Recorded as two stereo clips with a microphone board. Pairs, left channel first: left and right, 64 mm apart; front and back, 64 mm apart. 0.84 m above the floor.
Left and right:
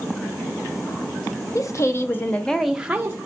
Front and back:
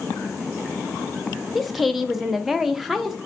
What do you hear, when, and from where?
1.6 s a woman speaking: 95° left, 0.7 m; by 3.2 s 100° right, 0.6 m